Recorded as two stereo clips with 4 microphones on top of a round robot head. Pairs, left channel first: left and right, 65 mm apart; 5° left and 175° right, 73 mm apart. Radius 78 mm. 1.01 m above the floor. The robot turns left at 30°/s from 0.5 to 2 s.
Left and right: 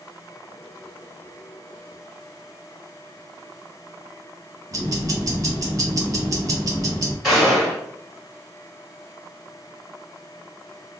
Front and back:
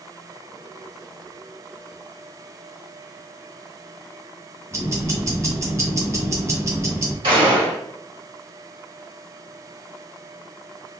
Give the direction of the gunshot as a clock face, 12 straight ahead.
6 o'clock.